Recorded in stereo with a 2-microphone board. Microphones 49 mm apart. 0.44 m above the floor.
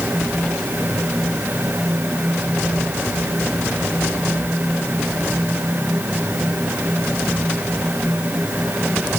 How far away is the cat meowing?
No cat meowing in this recording.